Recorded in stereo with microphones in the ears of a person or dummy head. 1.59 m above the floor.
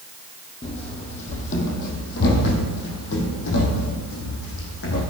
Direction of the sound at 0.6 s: 35° left (ahead or behind).